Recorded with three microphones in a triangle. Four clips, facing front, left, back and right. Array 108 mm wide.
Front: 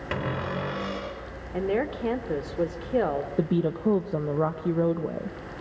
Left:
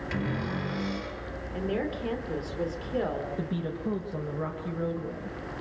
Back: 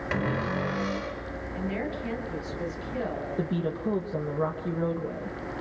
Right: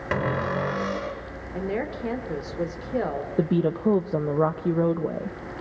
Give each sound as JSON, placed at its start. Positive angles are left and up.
{"t": 0.1, "sound": "a cupboard door", "azimuth_deg": -80, "distance_m": 3.5}
{"t": 1.5, "sound": "a woman speaking", "azimuth_deg": -20, "distance_m": 3.0}
{"t": 3.4, "sound": "a woman speaking", "azimuth_deg": -65, "distance_m": 1.1}